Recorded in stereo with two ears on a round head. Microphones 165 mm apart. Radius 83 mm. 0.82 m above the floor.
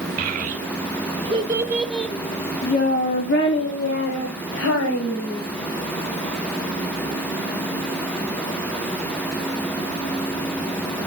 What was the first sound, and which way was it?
A child speaking, 50° right (ahead or behind).